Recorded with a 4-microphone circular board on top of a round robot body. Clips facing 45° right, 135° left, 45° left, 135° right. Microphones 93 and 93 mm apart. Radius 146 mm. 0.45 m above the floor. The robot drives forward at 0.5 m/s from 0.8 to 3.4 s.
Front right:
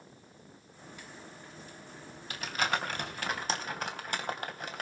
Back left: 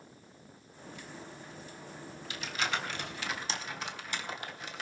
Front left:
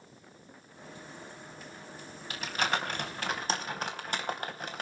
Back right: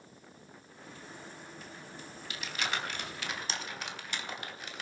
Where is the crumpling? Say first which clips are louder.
Front right 3 dB, front left 5 dB; straight ahead, 4 m.